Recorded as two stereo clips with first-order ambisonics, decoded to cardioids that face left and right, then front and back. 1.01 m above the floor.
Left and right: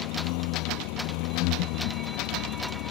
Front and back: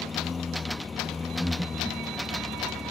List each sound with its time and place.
0.0 s a lawn mower: 75° left
1.4 s breathing: 90° left